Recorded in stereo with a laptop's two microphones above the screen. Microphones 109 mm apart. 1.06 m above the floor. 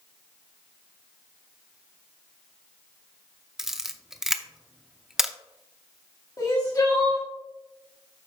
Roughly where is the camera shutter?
Centre.